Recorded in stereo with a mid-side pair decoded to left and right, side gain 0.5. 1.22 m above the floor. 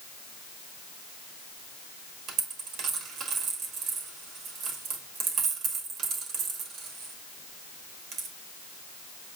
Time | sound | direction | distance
2.3 | a dropped coin | 70° right | 1.6 m